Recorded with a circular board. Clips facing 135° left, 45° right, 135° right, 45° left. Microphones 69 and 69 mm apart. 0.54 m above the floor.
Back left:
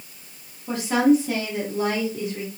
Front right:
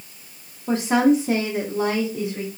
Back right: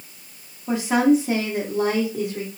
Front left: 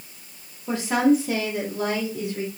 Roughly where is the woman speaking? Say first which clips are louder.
Front right 1 dB, back right 2 dB; ahead right.